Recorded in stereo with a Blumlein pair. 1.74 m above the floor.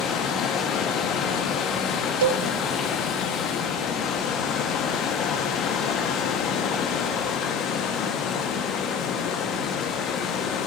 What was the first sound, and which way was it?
Running water, 30° left.